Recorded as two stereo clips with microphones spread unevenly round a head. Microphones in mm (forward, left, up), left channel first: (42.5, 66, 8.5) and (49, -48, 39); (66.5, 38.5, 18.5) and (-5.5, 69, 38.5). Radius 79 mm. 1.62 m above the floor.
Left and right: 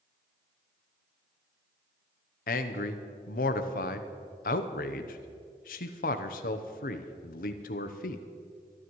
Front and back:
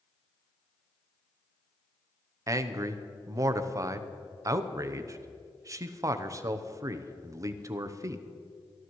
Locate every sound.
2.5 s a man speaking: 115° left, 0.8 m